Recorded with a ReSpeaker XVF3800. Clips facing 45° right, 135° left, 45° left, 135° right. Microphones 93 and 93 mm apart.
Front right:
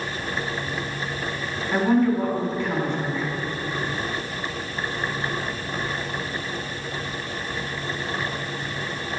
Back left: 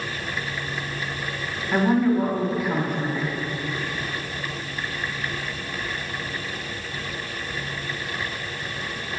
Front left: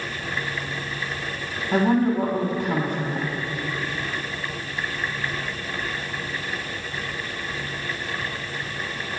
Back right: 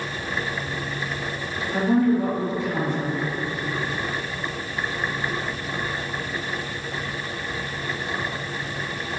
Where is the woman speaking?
55° left, 1.9 m.